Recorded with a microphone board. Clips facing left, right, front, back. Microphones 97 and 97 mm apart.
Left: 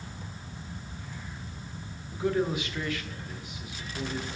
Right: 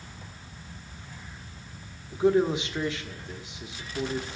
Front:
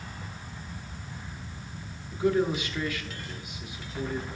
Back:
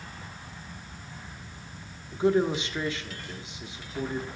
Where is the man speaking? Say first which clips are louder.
Right 5 dB, back 2 dB; 135° right, 0.8 m.